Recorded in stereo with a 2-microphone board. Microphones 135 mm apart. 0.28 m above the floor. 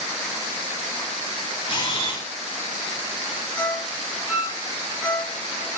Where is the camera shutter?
35° left (ahead or behind), 2.5 m.